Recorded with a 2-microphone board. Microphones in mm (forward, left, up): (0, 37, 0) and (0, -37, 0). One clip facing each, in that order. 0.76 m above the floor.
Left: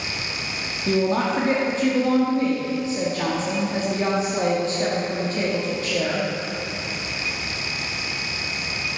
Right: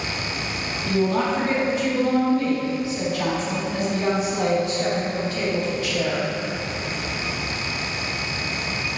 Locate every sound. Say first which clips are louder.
0.9 s a woman speaking: left 1 dB; 35° left (ahead or behind), 0.9 m